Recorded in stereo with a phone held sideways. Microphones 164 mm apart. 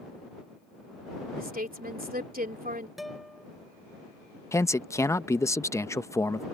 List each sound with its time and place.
1.4 s a woman speaking: 60° right (ahead or behind)
3.0 s a guitar: centre (ahead or behind)
4.5 s a man speaking: 15° left (ahead or behind)